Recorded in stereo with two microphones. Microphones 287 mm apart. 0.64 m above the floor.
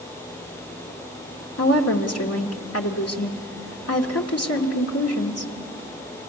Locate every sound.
1.6 s a woman speaking: 55° left (ahead or behind), 1.6 m